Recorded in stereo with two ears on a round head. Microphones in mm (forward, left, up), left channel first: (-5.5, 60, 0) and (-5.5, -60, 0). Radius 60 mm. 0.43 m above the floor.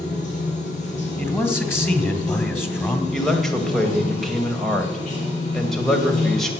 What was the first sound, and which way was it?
Running water, 65° left (ahead or behind).